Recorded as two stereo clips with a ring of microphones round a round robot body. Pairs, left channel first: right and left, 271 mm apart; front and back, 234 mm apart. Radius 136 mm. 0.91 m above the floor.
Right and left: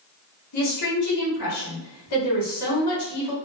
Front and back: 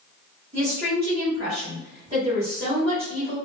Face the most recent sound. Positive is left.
turn(degrees=-110)